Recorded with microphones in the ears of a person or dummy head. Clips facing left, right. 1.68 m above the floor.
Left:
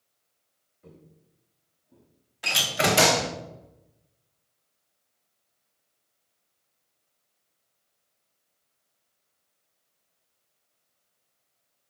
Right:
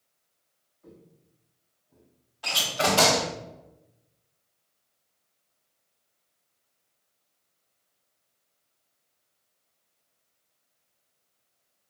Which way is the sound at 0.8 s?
40° left (ahead or behind).